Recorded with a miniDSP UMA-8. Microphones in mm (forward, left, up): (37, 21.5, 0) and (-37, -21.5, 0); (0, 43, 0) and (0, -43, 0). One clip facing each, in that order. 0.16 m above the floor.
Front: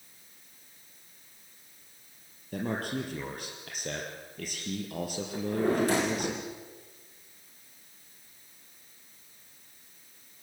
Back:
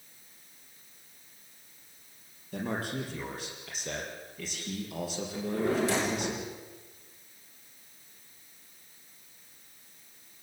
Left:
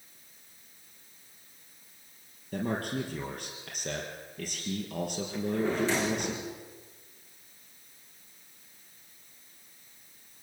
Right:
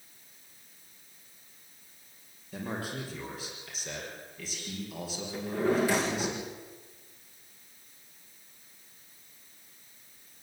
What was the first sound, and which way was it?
A man speaking, 60° left.